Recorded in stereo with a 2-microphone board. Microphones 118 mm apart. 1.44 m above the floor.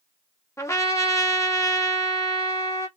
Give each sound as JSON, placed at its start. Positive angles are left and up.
{"t": 0.6, "sound": "a trumpet", "side_deg": 25, "distance_m": 1.5}